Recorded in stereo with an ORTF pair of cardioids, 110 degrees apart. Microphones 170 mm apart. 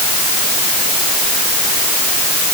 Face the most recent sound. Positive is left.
No sound to turn to.